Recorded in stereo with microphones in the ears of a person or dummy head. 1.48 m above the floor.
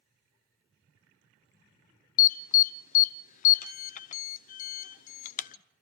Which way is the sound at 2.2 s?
50° left (ahead or behind).